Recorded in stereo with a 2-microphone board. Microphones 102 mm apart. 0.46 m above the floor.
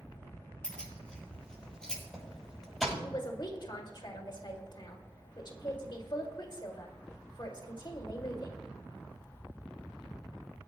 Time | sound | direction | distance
0.6 | keys jangling | 10° left (ahead or behind) | 7 m
3.0 | a man speaking | 50° left (ahead or behind) | 2.0 m